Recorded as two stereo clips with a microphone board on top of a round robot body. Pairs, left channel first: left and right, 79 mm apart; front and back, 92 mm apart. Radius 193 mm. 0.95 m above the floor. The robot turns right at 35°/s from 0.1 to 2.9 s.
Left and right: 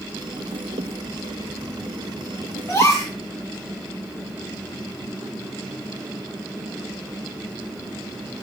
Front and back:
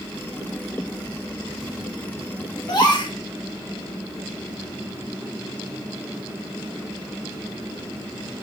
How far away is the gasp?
About 3 m.